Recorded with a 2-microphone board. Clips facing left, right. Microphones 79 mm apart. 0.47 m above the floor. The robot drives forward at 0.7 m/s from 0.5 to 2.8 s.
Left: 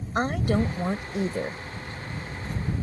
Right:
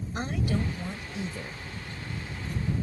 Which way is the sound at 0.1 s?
50° left (ahead or behind).